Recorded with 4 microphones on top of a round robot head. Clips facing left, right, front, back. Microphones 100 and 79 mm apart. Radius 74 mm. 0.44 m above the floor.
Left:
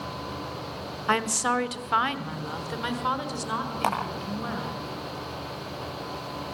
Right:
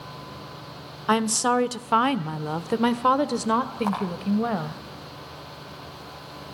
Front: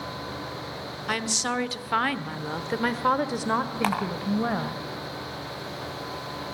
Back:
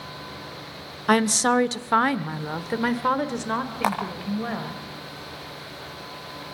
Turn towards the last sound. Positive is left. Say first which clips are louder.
# left 1 dB, back 4 dB
turn(degrees=110)